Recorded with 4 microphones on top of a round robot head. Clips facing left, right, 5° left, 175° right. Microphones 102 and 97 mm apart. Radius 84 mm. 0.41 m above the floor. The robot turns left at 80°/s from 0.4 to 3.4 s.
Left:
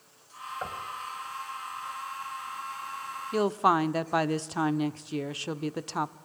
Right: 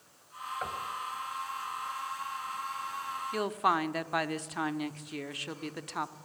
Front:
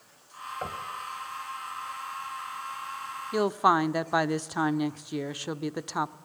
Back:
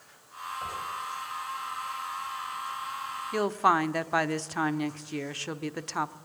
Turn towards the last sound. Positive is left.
turn(degrees=70)